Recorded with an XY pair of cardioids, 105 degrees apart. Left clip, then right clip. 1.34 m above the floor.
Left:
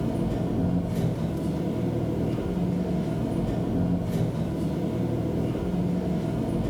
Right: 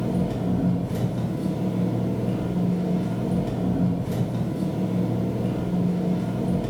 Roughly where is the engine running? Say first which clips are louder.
Right 2 dB; ahead right.